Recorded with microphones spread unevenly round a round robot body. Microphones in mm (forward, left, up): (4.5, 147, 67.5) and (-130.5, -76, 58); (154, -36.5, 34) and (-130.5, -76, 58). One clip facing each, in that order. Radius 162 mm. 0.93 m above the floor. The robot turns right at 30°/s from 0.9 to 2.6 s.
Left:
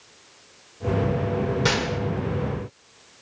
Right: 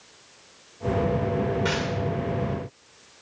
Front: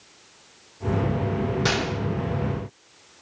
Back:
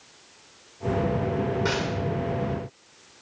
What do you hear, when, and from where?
1.6 s a gunshot: 30° left, 1.6 m; by 2.0 s 40° left, 1.6 m